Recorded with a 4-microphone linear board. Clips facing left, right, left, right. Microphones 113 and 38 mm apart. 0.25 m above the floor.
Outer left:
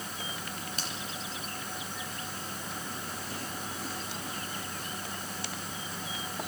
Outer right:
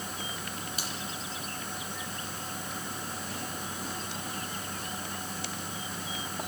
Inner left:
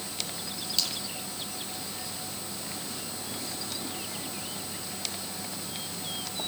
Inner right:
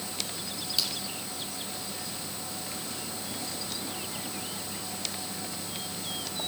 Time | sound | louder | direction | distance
0.8 | a finger snap | outer right 1 dB, even | 10° right (ahead or behind) | 6 m